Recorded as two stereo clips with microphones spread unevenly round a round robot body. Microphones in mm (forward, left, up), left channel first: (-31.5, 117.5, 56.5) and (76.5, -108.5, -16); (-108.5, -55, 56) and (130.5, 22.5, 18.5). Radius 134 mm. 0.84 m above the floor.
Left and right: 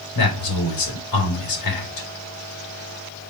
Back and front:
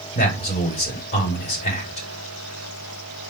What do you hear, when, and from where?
0.1 s a man speaking: 130° left, 5 m